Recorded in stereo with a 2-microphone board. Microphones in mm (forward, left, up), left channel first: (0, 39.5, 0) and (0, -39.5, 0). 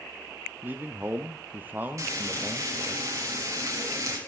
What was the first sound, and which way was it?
A man speaking, 25° right (ahead or behind).